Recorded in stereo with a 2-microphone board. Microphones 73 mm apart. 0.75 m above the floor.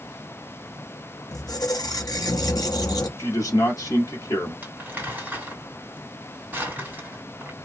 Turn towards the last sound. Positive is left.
turn(degrees=-25)  # may be behind; listen again after turning